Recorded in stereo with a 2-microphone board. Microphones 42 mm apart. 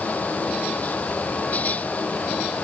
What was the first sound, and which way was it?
Only background noise.